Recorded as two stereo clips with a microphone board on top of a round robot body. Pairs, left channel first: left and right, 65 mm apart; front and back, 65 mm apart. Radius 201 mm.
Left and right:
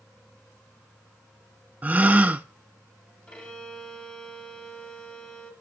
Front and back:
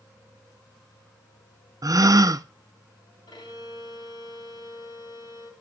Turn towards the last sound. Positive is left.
turn(degrees=10)